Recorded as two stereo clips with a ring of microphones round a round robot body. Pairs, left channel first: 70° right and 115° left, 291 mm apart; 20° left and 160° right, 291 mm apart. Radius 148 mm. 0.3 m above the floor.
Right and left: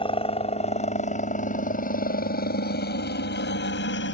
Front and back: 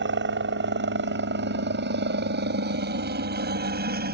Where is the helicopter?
130° right; by 4.2 s 105° right.